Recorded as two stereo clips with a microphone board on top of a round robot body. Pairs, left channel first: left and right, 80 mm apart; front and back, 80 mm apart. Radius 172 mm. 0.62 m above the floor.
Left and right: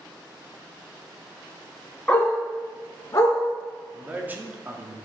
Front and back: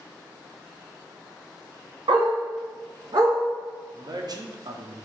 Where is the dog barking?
165° left, 1.6 m; by 3.4 s 140° left, 2 m.